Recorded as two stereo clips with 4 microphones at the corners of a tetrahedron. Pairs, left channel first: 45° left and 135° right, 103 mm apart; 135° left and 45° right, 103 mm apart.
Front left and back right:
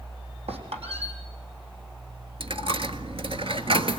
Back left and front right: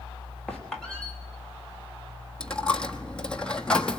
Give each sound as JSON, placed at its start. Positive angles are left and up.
{"t": 0.5, "sound": "a squeak", "azimuth_deg": -140, "distance_m": 3.5}
{"t": 2.4, "sound": "a dropped coin", "azimuth_deg": -145, "distance_m": 1.2}